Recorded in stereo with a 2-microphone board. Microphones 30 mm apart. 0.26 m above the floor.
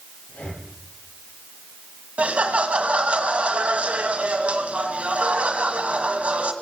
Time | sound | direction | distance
0.3 | breathing | 60° left (ahead or behind) | 4 m
2.2 | laughter | 50° right (ahead or behind) | 1.9 m